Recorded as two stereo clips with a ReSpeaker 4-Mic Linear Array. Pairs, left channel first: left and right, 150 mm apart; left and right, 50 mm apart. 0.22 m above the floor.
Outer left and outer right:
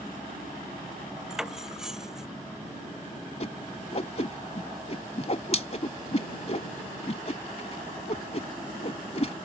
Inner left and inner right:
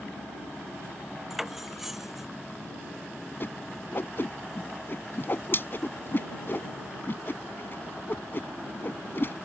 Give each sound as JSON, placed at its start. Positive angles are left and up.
{"t": 1.3, "sound": "cutlery clinking", "side_deg": -5}
{"t": 3.4, "sound": "a whoosh", "side_deg": 45}